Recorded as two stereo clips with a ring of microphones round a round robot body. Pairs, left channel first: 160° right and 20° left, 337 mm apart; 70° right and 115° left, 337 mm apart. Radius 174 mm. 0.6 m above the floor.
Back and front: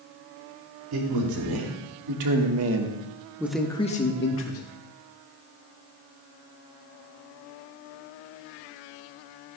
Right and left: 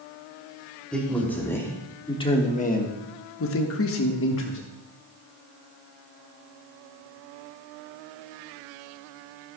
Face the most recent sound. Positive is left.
turn(degrees=-120)